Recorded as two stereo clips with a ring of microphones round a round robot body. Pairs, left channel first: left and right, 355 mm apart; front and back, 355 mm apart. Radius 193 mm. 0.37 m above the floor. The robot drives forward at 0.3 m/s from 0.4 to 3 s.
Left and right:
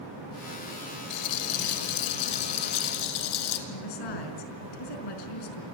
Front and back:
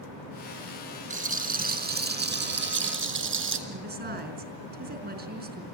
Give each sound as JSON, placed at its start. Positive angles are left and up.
{"t": 1.1, "sound": "a rattle", "azimuth_deg": 110, "distance_m": 2.5}
{"t": 3.7, "sound": "a woman speaking", "azimuth_deg": 115, "distance_m": 4.5}